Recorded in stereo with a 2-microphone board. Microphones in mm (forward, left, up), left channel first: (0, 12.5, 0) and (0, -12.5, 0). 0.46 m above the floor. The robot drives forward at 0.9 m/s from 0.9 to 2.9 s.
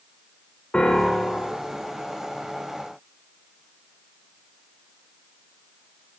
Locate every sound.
0.7 s a piano: 40° left (ahead or behind), 6 m; by 1.6 s 35° left (ahead or behind), 6.5 m